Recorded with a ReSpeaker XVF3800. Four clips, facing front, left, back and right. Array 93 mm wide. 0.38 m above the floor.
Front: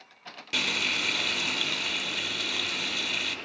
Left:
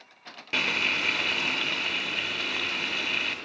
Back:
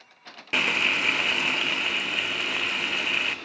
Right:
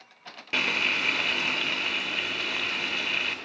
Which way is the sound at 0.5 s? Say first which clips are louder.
Even, back 6 dB; straight behind.